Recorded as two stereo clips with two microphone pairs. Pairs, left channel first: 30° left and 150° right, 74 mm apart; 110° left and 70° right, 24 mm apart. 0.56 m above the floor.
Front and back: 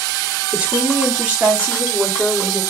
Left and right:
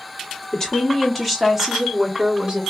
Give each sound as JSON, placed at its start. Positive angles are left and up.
{"t": 0.5, "sound": "a woman speaking", "azimuth_deg": 150, "distance_m": 1.3}